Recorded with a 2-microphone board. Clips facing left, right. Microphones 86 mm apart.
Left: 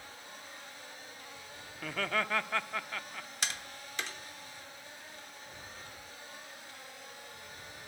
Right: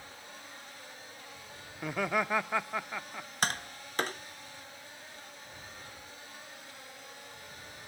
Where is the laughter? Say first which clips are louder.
Right 3 dB; 15° right (ahead or behind), 0.8 m.